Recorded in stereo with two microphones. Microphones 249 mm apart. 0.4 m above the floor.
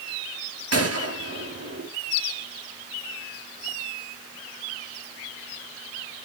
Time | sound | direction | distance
0.7 | a gunshot | 75° right (ahead or behind) | 4 m